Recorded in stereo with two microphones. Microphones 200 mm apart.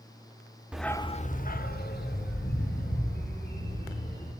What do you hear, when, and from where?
0.7 s a dog barking: 5° right (ahead or behind), 0.7 m; by 4.3 s 50° left (ahead or behind), 4.5 m